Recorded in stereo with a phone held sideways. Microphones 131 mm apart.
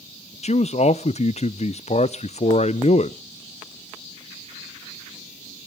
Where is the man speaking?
55° left (ahead or behind), 0.5 m.